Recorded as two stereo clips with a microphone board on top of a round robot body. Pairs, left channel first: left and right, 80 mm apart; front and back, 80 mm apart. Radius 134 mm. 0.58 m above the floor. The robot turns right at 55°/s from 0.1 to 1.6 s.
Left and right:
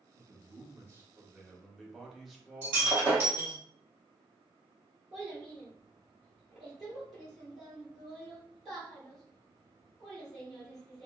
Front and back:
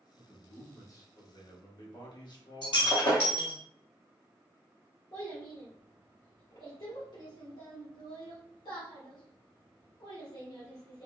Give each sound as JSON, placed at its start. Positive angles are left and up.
{"t": 0.1, "sound": "a man speaking", "azimuth_deg": -80, "distance_m": 1.1}
{"t": 2.6, "sound": "breaking glass", "azimuth_deg": -25, "distance_m": 1.6}
{"t": 5.1, "sound": "a child speaking", "azimuth_deg": 5, "distance_m": 1.4}